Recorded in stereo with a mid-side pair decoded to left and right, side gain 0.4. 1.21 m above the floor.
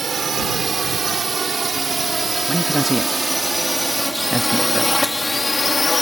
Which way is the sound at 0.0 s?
45° right.